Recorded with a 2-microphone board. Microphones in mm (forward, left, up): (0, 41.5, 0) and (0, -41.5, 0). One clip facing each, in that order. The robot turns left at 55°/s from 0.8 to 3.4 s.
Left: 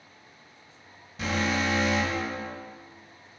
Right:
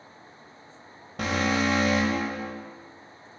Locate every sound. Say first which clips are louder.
1.2 s an alarm: right 2 dB; 75° right, 1.7 m; by 2.5 s 150° right, 1.7 m